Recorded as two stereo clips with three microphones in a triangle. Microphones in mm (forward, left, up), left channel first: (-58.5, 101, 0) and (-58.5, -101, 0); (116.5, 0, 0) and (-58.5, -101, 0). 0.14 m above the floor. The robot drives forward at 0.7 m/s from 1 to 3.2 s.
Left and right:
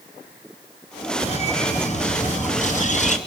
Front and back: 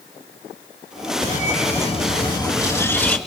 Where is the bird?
50° left, 2 m; by 3.2 s 110° left, 1.9 m.